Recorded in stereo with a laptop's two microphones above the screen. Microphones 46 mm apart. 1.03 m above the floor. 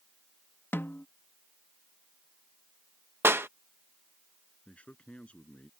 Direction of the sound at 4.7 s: 30° left (ahead or behind).